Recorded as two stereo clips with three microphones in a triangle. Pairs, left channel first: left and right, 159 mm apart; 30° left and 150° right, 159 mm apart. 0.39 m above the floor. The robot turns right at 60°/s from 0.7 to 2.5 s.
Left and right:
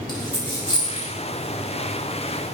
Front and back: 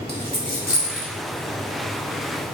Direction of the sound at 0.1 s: 35° left.